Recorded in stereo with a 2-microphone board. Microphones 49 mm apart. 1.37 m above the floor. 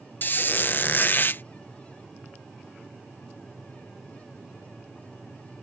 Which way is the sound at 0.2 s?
40° left (ahead or behind).